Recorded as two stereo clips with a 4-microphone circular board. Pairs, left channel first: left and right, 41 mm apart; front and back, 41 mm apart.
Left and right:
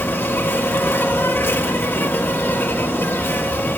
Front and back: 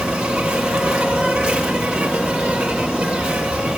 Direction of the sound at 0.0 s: 110° left.